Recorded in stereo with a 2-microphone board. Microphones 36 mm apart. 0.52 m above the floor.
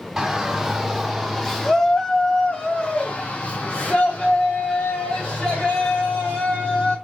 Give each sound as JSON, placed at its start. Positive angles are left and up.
{"t": 0.2, "sound": "a shout", "side_deg": -10, "distance_m": 1.5}